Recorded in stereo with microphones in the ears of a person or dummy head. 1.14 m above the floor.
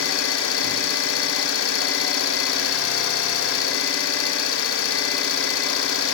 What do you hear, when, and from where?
0.0 s an engine running: 80° left, 2.0 m